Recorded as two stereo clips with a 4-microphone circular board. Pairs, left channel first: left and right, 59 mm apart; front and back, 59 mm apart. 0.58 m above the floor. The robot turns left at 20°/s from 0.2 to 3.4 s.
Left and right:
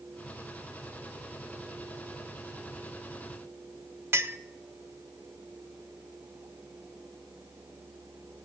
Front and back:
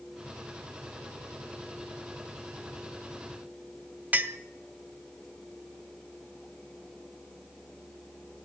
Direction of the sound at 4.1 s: 120° right.